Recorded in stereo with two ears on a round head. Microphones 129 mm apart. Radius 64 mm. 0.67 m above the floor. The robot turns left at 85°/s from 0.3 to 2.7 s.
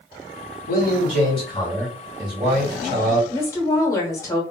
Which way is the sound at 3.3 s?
20° left (ahead or behind).